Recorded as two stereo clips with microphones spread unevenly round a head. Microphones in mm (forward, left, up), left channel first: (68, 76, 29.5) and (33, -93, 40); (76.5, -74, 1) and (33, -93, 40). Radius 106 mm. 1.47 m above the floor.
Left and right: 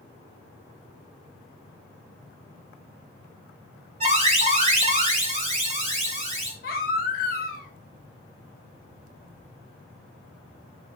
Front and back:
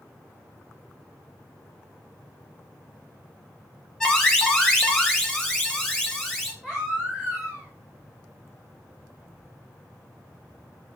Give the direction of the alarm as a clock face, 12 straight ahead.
2 o'clock.